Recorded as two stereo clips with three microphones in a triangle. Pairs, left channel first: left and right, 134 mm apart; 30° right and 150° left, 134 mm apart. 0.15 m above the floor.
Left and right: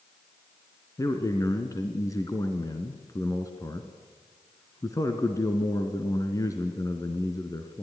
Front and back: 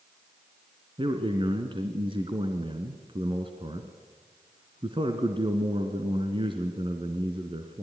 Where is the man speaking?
140° left, 2.0 m.